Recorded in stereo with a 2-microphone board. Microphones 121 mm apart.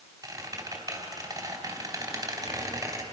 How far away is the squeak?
About 3.5 m.